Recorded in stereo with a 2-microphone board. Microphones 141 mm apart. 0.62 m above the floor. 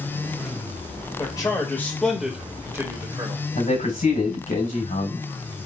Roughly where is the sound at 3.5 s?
Left.